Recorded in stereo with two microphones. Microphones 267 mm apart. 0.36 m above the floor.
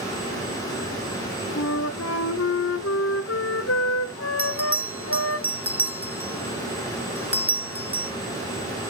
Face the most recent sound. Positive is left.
turn(degrees=-5)  # may be behind; listen again after turning